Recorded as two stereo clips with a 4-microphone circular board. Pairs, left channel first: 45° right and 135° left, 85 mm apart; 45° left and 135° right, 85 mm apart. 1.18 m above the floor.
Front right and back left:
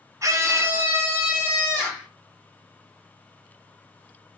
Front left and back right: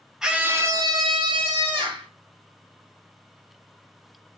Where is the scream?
145° left, 0.5 m; by 2.1 s 145° right, 1.3 m.